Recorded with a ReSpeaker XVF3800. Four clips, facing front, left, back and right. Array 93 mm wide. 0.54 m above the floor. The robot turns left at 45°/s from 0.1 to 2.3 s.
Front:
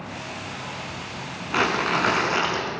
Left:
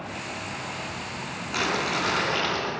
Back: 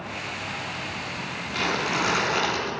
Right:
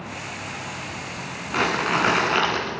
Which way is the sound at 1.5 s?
30° right.